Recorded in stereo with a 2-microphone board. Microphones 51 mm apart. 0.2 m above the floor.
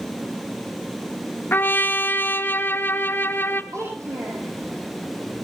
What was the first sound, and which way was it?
A trumpet, 40° left (ahead or behind).